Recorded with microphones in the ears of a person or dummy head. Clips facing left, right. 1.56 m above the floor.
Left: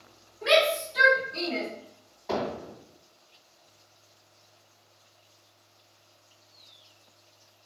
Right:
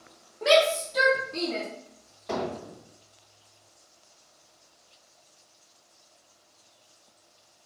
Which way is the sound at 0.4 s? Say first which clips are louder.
Right 2 dB; 75° right (ahead or behind).